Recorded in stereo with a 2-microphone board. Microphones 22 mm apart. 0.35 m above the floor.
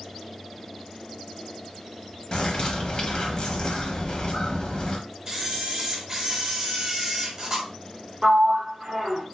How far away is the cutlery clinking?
No cutlery clinking in this recording.